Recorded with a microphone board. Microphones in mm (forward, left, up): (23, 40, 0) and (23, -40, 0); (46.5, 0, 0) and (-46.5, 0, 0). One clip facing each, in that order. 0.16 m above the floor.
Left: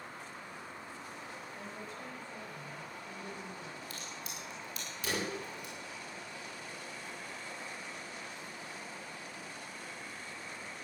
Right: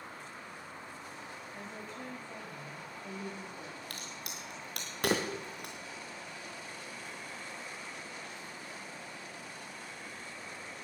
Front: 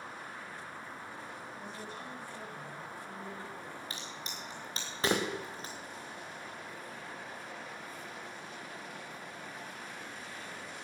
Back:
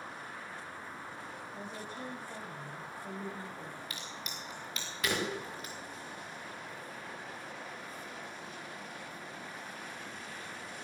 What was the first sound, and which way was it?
A woman speaking, 145° right.